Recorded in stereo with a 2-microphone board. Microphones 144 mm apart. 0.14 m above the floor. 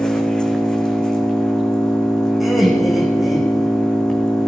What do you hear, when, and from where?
0.0 s an engine running: 5° left (ahead or behind), 2 m
2.4 s laughter: centre (ahead or behind), 7.5 m